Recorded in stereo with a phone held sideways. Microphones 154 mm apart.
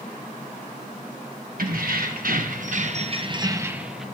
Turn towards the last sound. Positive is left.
turn(degrees=0)  # may be behind; listen again after turning